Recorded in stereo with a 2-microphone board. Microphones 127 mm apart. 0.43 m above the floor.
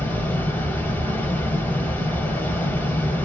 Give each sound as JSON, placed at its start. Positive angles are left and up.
{"t": 0.0, "sound": "running water", "side_deg": 15, "distance_m": 0.8}